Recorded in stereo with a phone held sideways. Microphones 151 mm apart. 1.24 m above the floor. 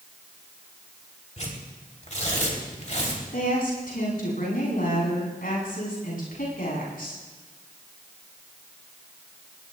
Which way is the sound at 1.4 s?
55° left (ahead or behind).